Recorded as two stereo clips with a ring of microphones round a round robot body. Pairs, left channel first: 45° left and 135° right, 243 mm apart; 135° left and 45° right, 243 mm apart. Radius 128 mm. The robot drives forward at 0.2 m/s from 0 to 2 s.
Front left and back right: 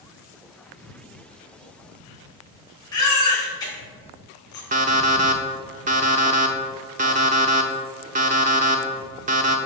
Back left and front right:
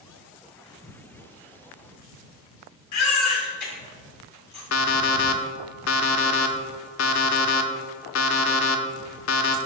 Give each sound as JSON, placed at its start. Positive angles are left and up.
{"t": 2.9, "sound": "a baby crying", "azimuth_deg": 120, "distance_m": 2.0}
{"t": 4.7, "sound": "an alarm clock", "azimuth_deg": 165, "distance_m": 0.5}